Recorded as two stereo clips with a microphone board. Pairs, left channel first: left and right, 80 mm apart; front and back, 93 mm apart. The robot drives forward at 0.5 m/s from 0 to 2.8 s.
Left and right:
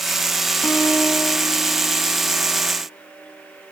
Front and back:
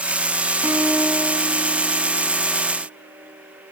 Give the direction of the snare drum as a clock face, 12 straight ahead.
No snare drum in this recording.